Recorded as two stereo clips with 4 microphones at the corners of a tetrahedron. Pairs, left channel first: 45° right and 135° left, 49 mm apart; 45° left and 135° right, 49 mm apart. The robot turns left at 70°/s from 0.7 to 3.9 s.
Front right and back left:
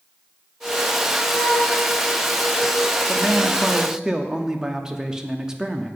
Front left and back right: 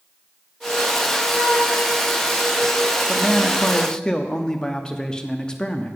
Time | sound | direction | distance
1.3 | a flute | 95° right | 3 m
3.1 | a man speaking | 140° left | 0.6 m